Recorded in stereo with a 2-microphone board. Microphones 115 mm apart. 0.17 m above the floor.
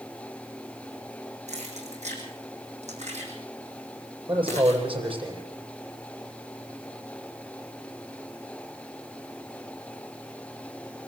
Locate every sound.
1.5 s keys jangling: 80° right, 7 m
4.3 s a man speaking: 50° right (ahead or behind), 8 m